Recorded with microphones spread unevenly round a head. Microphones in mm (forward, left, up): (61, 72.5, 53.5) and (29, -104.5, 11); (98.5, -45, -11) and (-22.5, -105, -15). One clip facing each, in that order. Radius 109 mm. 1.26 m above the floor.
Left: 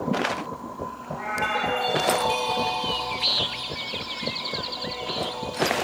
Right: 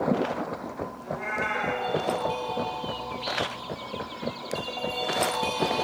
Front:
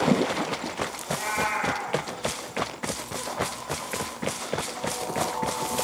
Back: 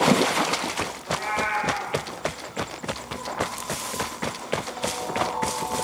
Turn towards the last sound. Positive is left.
turn(degrees=-45)